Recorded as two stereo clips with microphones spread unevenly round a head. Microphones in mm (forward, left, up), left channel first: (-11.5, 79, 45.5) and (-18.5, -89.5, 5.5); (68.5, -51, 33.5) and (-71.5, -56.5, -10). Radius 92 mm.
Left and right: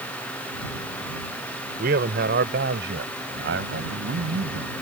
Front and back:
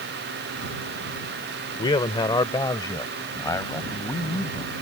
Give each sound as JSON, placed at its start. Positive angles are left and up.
{"t": 1.8, "sound": "a man speaking", "azimuth_deg": -50}